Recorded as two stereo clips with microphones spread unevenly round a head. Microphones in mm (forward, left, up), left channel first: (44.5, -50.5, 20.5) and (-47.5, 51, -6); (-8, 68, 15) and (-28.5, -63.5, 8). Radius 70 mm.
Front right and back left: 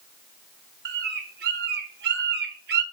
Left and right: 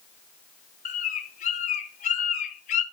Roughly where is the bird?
Left.